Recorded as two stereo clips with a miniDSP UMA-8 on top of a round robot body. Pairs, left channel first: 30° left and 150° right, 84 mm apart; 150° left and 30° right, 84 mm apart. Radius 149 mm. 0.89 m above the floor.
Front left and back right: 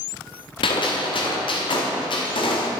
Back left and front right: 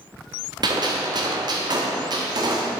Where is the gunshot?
5° left, 1.3 m.